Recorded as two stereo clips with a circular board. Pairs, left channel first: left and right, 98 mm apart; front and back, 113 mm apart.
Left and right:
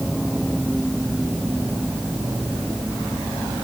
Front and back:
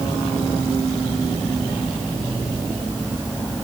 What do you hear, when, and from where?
Only background noise.